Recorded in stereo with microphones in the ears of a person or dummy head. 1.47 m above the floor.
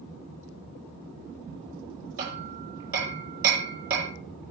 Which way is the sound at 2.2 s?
60° right (ahead or behind).